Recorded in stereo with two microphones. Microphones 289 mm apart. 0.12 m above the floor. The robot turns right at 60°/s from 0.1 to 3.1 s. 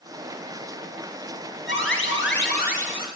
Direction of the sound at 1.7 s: 70° left.